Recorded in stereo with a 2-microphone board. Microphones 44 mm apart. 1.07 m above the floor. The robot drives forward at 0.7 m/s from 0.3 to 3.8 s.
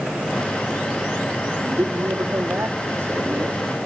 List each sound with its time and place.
1.6 s a man speaking: 80° right, 2.5 m; by 3.7 s 65° right (ahead or behind), 2.5 m